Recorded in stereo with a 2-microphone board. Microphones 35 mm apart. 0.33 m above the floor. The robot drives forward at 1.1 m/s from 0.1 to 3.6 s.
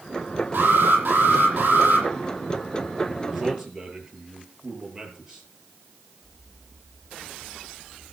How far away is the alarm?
About 10 m.